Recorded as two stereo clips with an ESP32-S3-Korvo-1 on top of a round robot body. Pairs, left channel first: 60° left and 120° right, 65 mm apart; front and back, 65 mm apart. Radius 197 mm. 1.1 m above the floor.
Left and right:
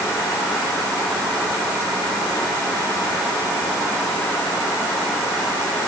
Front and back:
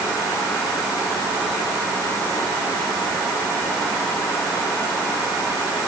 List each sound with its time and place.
Only background noise.